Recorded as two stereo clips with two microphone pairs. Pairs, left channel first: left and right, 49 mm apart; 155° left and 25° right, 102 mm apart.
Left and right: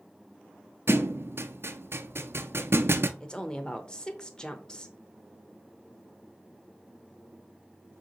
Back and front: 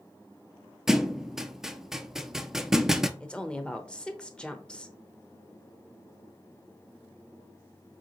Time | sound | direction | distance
0.9 | a thud | 115° right | 0.6 m
3.2 | a woman speaking | 105° left | 0.8 m